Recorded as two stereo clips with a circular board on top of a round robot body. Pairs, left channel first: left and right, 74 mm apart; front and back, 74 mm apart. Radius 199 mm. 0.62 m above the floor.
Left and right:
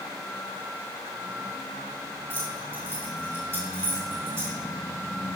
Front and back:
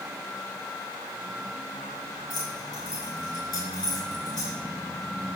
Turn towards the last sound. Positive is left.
turn(degrees=-40)